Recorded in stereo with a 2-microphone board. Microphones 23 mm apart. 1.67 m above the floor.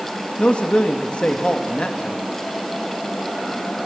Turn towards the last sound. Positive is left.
turn(degrees=60)  # may be behind; listen again after turning